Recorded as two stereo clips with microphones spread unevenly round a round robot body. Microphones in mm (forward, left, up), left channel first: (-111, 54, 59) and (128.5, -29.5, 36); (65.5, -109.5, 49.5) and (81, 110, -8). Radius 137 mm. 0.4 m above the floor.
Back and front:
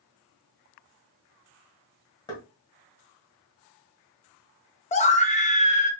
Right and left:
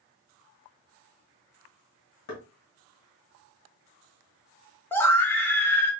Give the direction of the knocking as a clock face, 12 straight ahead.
4 o'clock.